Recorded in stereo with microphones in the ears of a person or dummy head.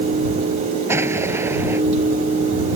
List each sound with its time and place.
0.9 s an explosion: 15° right (ahead or behind)